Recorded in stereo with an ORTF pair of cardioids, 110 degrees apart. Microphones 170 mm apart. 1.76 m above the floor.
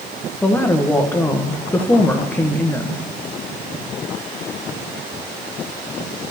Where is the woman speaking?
10° left, 1.5 m.